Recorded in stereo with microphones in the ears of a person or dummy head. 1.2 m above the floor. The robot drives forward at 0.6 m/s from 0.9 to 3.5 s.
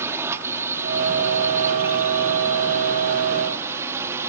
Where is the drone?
10° right (ahead or behind); by 4.3 s 15° right (ahead or behind).